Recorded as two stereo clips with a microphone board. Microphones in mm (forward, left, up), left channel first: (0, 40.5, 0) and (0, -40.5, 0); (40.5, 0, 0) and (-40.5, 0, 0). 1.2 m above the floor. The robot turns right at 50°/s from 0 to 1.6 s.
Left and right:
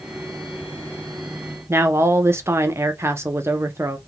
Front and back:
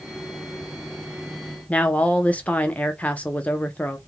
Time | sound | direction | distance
1.7 | a woman speaking | 60° right | 0.6 m